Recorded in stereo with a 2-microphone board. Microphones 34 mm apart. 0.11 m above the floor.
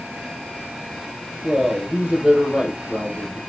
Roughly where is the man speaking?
Right.